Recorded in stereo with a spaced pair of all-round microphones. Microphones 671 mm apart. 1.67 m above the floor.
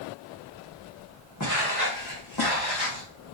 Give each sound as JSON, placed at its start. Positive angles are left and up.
{"t": 1.4, "sound": "footsteps", "side_deg": 25, "distance_m": 5.5}